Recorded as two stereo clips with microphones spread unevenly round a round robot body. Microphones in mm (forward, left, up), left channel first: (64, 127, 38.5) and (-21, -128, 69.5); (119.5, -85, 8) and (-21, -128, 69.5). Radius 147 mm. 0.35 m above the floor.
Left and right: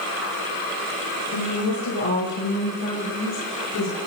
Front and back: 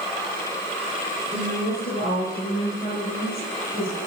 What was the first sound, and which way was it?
A woman speaking, 90° left.